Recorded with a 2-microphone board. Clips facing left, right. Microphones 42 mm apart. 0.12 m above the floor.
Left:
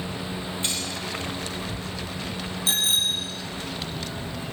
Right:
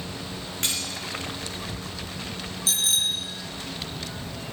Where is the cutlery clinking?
65° right (ahead or behind), 7 m.